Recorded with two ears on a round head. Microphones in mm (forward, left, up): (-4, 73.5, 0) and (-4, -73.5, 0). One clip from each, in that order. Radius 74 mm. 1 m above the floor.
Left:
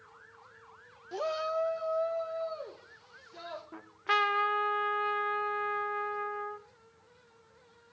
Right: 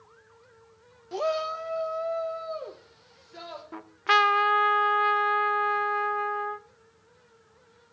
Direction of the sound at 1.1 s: 5° right (ahead or behind).